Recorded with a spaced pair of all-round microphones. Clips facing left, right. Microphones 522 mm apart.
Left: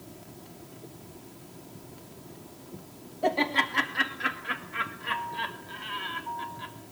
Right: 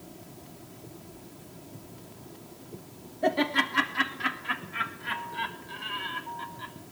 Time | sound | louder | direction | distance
3.2 | laughter | right 1 dB | 40° right (ahead or behind) | 1.8 m